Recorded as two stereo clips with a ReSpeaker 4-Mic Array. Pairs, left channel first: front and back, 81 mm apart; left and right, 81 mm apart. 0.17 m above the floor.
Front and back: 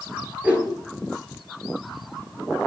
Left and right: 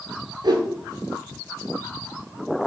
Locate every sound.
0.4 s a whoosh: 105° right, 0.7 m